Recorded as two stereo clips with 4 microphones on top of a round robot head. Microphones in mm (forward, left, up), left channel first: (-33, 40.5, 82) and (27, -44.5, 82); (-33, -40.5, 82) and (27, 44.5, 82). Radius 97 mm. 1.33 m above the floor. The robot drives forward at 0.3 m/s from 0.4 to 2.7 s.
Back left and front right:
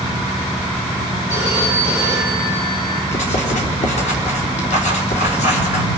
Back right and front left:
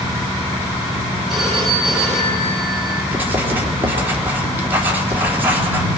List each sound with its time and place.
1.3 s a phone ringing: 145° left, 10 m
3.1 s writing: 125° left, 3.5 m